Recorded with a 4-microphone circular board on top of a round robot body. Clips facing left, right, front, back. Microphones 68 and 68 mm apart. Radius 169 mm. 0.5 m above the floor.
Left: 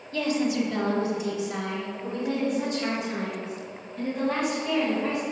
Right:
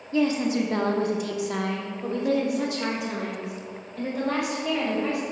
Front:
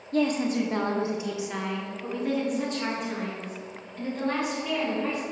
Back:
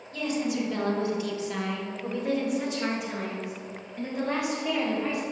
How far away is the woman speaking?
About 1.0 m.